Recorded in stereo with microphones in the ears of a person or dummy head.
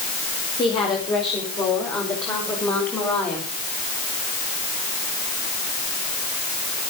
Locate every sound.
0.6 s a woman speaking: 15° left (ahead or behind), 4.5 m; by 3.5 s 5° left (ahead or behind), 6 m